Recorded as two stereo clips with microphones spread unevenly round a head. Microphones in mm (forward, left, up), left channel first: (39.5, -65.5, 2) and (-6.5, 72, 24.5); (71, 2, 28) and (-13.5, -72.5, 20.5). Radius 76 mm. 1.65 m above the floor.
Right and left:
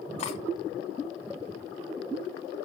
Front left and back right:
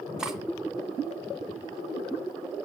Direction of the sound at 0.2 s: 55° right.